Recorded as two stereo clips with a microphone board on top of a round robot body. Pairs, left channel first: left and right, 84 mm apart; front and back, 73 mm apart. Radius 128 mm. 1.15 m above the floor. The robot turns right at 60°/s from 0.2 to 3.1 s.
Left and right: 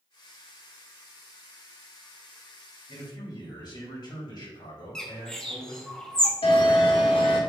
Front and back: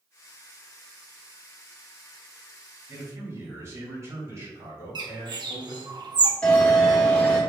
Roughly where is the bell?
Left.